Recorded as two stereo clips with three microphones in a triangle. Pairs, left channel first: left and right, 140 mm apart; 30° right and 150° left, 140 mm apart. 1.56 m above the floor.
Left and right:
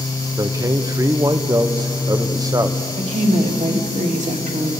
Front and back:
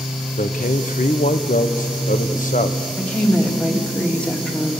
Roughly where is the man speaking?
Ahead right.